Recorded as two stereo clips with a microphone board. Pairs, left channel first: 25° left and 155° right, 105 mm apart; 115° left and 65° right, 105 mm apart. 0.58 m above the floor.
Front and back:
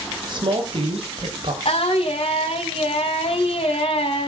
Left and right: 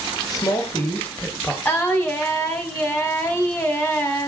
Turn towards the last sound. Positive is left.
turn(degrees=45)